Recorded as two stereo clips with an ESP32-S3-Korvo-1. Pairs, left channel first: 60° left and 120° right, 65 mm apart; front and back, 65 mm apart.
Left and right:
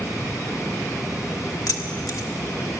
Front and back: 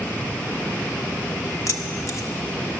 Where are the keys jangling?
35° left, 1.2 m.